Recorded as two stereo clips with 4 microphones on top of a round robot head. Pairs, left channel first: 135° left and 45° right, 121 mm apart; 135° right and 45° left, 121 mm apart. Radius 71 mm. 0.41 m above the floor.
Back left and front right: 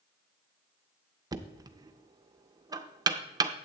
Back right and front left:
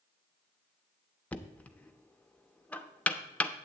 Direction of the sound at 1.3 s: 65° right.